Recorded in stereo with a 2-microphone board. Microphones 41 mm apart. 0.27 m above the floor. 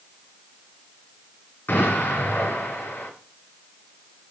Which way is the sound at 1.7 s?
55° left (ahead or behind).